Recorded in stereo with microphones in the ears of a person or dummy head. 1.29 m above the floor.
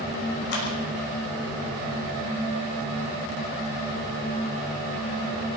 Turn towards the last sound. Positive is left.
turn(degrees=70)  # may be behind; listen again after turning